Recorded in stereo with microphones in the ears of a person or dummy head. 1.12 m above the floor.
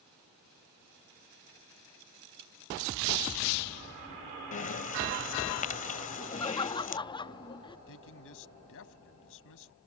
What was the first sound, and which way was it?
Breathing, 45° left (ahead or behind).